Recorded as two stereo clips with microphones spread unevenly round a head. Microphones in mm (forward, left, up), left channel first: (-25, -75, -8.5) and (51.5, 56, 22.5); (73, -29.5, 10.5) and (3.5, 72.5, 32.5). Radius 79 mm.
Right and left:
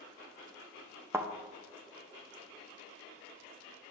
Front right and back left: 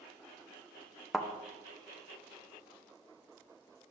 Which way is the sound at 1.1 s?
60° left.